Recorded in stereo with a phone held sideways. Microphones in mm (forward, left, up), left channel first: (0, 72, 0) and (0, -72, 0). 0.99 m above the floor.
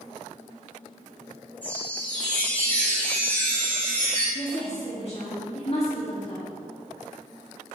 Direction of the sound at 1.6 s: 10° left (ahead or behind).